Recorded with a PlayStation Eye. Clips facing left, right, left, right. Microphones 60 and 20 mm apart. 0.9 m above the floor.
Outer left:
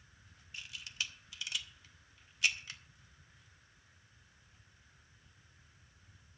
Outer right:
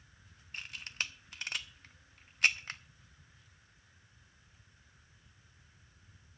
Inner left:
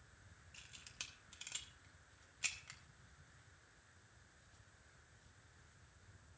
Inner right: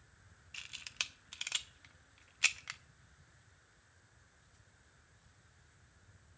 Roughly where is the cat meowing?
No cat meowing in this recording.